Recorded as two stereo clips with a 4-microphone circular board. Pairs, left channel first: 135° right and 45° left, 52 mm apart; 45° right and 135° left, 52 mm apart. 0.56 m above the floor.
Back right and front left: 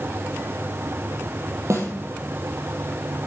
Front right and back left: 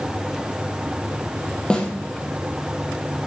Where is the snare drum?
30° left, 3.5 m.